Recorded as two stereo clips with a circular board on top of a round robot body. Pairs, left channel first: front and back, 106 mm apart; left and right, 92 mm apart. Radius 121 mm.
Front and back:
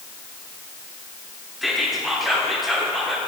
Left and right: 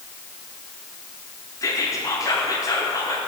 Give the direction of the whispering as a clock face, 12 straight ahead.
9 o'clock.